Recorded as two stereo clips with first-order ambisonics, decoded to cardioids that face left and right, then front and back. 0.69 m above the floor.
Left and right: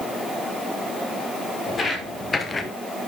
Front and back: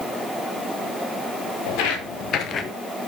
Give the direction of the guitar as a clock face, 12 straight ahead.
No guitar in this recording.